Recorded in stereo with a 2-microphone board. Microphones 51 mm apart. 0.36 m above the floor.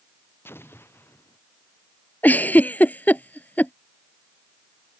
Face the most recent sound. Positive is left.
turn(degrees=35)  # may be behind; listen again after turning